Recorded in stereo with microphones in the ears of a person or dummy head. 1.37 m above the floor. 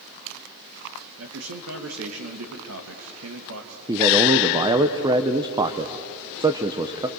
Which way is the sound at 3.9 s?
20° right (ahead or behind).